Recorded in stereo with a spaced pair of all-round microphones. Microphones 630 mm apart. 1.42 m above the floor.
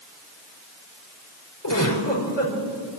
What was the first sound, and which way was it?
A giggle, 40° left (ahead or behind).